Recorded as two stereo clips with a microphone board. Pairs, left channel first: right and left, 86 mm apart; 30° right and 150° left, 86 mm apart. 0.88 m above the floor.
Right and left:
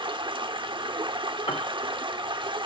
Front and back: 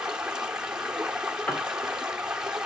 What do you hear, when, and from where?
0.0 s running water: 70° left, 1.0 m
1.5 s a piano: 100° right, 1.1 m